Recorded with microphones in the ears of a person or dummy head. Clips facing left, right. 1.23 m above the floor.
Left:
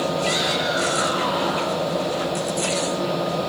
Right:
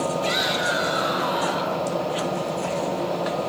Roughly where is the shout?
Right.